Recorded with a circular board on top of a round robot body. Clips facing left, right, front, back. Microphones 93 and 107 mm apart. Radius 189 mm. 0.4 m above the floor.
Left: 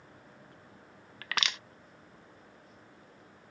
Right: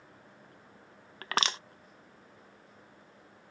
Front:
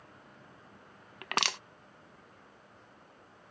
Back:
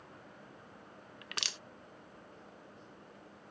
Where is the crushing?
35° right.